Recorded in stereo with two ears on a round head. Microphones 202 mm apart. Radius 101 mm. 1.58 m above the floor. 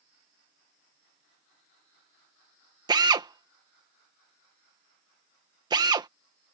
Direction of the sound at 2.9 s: 20° right (ahead or behind).